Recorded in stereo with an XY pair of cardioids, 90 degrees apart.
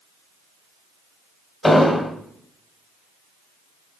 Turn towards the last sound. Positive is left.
turn(degrees=15)